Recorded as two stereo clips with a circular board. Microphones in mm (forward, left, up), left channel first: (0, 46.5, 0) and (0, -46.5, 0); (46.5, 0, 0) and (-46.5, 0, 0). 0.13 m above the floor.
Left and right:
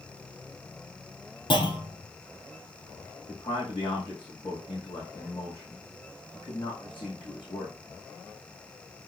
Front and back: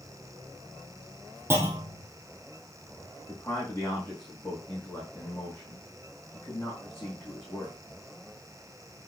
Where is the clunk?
120° left, 2 m.